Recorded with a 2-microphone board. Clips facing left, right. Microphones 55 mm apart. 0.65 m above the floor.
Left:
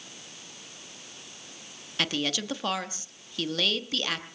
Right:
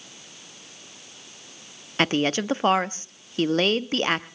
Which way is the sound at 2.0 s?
35° right (ahead or behind).